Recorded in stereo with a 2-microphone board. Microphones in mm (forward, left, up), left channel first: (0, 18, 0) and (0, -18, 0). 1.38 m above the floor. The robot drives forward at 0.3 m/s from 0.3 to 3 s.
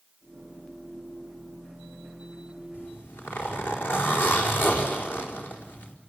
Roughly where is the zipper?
Left.